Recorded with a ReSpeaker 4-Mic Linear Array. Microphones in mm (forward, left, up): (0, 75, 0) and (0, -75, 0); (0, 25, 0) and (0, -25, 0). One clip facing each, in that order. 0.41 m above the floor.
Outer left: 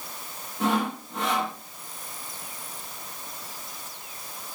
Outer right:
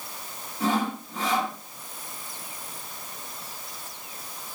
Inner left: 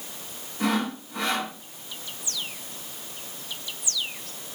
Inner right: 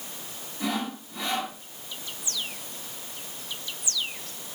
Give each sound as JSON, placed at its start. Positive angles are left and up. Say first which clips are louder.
{"t": 0.6, "sound": "sawing", "louder": "even, inner left 4 dB", "side_deg": 65, "distance_m": 4.5}